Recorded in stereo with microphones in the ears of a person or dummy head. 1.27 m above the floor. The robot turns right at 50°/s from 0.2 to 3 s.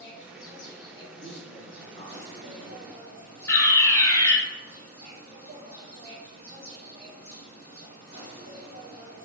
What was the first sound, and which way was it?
An insect, 60° left.